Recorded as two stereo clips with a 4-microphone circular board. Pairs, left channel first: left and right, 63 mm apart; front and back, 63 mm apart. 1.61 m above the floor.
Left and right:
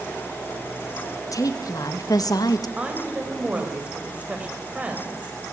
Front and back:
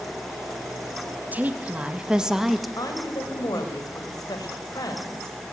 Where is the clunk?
I don't hear a clunk.